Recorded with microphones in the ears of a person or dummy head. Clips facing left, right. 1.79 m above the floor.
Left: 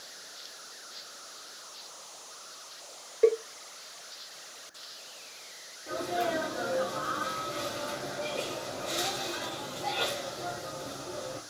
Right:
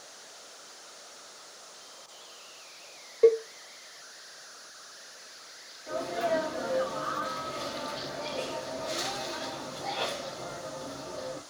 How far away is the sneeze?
About 4.5 m.